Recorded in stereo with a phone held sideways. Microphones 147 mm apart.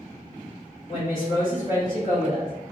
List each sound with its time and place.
0.9 s a woman speaking: 60° left (ahead or behind), 1.2 m